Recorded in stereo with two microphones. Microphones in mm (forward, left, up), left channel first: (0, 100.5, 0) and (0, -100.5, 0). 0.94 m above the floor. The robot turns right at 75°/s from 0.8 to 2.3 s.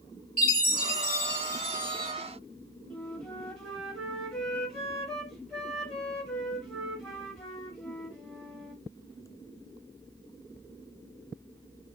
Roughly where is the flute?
Centre.